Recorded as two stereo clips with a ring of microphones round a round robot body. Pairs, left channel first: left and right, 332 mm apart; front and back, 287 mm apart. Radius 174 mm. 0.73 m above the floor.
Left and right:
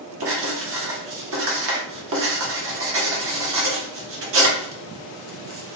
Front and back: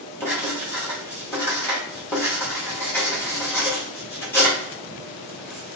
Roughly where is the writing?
Right.